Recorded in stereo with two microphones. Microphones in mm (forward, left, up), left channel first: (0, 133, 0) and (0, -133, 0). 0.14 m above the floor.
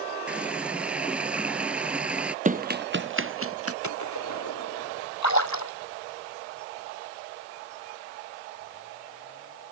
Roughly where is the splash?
Left.